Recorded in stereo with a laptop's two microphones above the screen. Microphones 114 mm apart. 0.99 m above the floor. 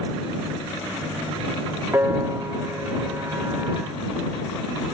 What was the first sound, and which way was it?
A piano, 25° right (ahead or behind).